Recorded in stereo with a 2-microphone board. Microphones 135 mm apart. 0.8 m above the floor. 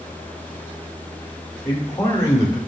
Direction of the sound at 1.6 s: 30° left (ahead or behind).